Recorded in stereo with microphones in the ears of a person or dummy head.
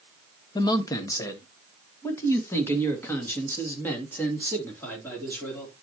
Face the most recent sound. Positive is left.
turn(degrees=5)  # may be behind; listen again after turning